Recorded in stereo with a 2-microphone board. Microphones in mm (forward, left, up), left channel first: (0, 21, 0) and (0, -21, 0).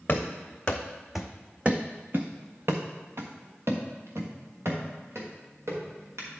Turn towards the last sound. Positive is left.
turn(degrees=-85)